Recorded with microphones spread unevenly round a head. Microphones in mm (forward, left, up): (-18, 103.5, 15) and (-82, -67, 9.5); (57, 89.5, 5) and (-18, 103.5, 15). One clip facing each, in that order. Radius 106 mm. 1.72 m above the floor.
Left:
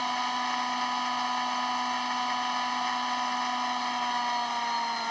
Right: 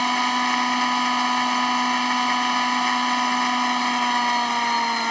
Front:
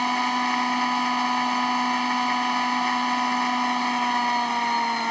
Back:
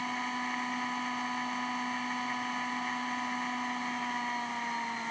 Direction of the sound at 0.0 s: 65° right.